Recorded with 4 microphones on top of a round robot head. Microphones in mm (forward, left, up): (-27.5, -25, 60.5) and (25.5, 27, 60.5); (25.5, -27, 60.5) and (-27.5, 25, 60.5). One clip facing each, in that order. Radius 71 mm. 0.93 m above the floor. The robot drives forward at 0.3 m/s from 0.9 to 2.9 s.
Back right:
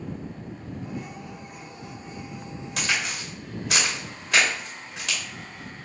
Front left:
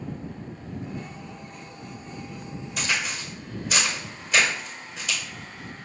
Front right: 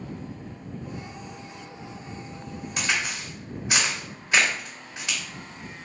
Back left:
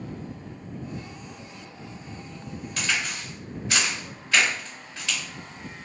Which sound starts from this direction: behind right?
A crack, at 2.8 s.